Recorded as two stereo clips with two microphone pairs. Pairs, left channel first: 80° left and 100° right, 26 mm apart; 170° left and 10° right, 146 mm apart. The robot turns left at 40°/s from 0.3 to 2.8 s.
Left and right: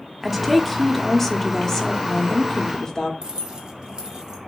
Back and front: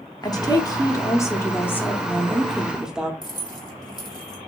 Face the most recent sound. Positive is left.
turn(degrees=-145)